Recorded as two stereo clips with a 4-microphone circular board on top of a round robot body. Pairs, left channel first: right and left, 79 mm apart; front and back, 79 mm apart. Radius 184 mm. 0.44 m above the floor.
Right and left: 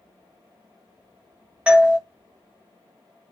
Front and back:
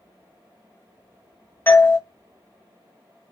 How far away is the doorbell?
About 1.2 m.